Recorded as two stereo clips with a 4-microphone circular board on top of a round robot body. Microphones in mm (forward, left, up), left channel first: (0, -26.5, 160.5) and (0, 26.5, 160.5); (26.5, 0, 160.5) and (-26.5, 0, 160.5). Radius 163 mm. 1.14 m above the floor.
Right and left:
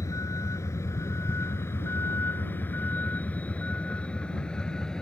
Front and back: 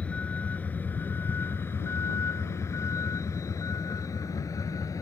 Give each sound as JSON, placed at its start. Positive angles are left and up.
{"t": 0.0, "sound": "a vehicle", "azimuth_deg": -65}